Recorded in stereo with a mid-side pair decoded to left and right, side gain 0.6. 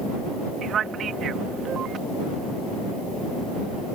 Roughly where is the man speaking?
Ahead right.